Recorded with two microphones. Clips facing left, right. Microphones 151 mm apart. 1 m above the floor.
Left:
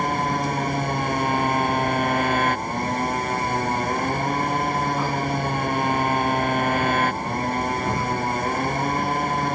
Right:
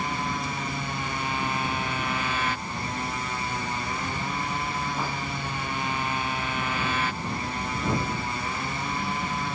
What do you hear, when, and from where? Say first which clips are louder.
0.0 s a motorcycle: left 7 dB; 55° left (ahead or behind)